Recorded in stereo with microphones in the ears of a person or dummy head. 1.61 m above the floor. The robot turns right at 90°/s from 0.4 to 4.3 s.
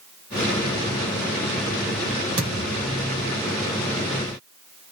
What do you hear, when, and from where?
2.4 s a thud: 150° right, 1.9 m; by 2.9 s 100° right, 1.9 m